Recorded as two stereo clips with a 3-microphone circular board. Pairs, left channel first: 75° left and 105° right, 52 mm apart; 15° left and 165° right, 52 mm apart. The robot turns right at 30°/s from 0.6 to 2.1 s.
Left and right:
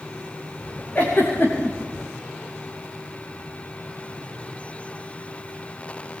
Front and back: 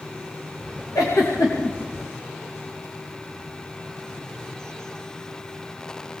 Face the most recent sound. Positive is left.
turn(degrees=50)